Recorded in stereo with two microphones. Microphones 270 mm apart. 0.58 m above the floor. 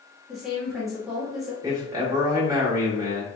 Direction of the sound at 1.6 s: 15° right (ahead or behind).